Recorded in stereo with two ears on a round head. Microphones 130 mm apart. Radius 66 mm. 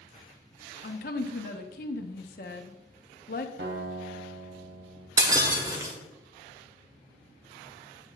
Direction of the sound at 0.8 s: 60° left (ahead or behind).